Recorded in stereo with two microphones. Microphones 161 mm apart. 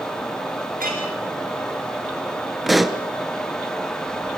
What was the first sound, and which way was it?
A clink, 70° right (ahead or behind).